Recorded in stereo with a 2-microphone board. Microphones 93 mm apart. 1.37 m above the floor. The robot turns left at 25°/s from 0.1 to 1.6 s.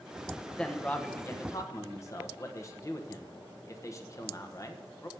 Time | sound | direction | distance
0.6 | a man speaking | 10° left (ahead or behind) | 1.0 m